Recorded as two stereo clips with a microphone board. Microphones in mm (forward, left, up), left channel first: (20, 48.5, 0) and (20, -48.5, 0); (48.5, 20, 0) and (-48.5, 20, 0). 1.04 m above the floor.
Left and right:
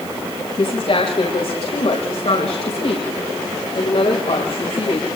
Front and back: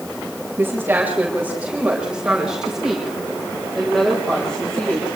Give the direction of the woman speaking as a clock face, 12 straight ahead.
8 o'clock.